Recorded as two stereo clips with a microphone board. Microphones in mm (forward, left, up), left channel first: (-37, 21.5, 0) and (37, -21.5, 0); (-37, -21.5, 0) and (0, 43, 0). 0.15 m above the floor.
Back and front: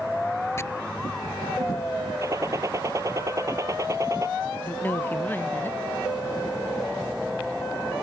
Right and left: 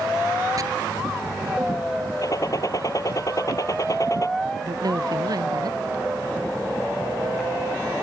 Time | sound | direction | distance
0.6 | chopping | 95° left | ?
2.2 | a gunshot | 80° right | ?
4.6 | a woman speaking | 85° left | ?